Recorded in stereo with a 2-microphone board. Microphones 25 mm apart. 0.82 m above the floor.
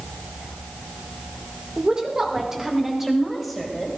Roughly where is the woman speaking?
Right.